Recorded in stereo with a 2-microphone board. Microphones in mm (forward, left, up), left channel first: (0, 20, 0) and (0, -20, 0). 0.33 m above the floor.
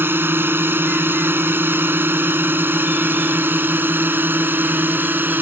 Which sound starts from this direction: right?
A drone, at 0.0 s.